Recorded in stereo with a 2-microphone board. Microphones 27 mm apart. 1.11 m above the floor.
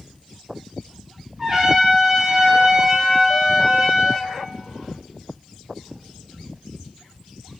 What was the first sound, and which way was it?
A trumpet, 10° right (ahead or behind).